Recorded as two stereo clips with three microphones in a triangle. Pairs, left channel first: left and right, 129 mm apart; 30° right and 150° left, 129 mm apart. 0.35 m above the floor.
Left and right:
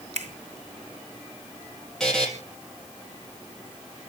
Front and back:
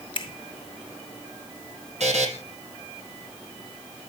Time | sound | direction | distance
0.1 | a finger snap | 75° right | 2.5 m
2.0 | a buzzer | 175° left | 5 m